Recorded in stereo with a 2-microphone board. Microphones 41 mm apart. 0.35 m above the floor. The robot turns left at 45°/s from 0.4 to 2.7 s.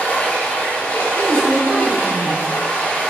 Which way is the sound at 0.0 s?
140° left.